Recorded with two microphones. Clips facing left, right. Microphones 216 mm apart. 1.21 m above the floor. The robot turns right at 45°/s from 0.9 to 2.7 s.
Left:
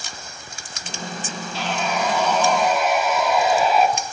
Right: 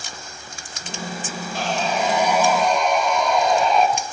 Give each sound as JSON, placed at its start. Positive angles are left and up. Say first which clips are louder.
{"t": 1.5, "sound": "sawing", "louder": "right 2 dB", "azimuth_deg": -50, "distance_m": 2.5}